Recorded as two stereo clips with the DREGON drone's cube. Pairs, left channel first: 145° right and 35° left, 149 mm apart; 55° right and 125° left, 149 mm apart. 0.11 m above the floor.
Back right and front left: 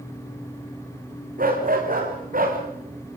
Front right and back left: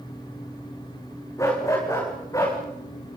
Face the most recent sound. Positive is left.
turn(degrees=10)